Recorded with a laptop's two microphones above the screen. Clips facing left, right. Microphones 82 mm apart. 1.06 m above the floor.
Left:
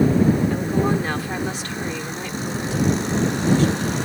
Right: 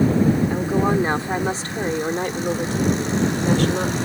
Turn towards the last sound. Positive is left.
turn(degrees=-70)  # may be behind; listen again after turning